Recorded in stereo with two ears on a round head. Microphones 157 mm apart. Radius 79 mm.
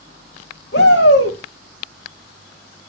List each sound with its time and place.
0.7 s a shout: 65° left (ahead or behind), 7 m